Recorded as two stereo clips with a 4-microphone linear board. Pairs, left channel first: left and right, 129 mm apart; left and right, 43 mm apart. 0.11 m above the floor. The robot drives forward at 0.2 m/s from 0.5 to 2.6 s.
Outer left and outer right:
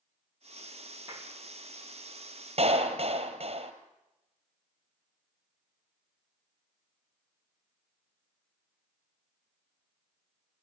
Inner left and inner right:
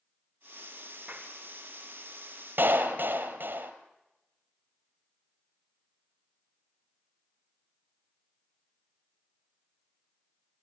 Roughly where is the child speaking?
I don't hear a child speaking.